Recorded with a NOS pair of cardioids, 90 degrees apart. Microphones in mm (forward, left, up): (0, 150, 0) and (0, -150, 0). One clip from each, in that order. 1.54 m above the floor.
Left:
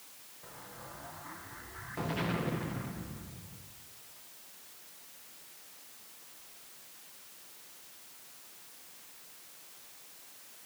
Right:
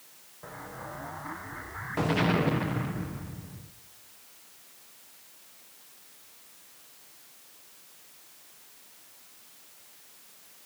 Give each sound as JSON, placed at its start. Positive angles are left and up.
{"t": 0.4, "sound": "an explosion", "azimuth_deg": -50, "distance_m": 1.4}